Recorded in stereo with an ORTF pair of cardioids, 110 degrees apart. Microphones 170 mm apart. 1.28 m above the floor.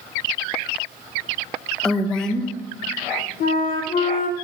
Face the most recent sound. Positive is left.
turn(degrees=55)